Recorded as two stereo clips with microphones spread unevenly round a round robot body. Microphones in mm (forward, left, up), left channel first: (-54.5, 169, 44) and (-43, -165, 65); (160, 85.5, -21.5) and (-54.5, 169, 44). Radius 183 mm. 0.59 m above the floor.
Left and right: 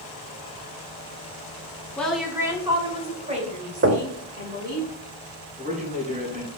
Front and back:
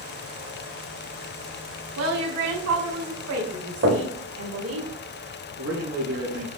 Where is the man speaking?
155° right, 5 m.